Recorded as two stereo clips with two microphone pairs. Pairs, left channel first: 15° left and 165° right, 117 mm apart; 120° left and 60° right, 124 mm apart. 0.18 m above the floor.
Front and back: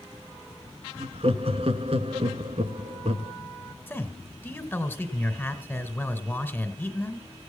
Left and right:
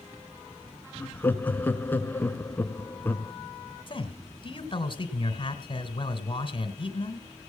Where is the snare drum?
No snare drum in this recording.